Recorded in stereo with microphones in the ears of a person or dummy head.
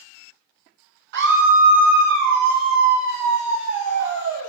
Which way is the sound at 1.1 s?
60° right (ahead or behind).